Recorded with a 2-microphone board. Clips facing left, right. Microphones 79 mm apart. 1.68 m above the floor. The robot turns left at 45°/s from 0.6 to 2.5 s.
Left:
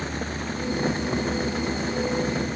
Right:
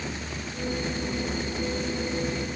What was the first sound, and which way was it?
Only background noise.